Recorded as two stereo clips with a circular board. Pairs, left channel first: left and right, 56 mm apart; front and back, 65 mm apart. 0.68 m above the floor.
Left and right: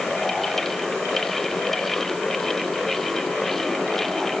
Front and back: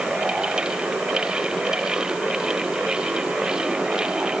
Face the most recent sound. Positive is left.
No sound to turn to.